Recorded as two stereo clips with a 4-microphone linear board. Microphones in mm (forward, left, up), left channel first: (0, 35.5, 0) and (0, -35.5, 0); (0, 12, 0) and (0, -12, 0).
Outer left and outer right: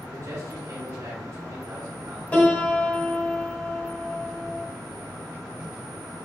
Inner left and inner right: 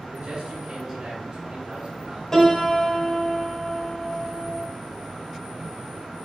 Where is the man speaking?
45° right (ahead or behind), 2.5 m.